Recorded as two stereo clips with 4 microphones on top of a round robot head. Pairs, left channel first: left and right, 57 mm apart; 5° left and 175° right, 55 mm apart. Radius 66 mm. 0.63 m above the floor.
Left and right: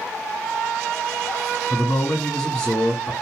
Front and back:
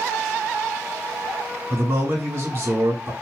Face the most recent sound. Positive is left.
turn(degrees=155)